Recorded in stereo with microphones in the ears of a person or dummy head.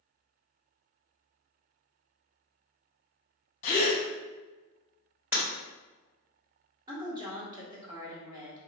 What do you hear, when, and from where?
3.6 s a gasp: 40° left (ahead or behind), 0.8 m
5.3 s breaking glass: 10° right (ahead or behind), 1.8 m
6.9 s a woman speaking: 25° right (ahead or behind), 1.3 m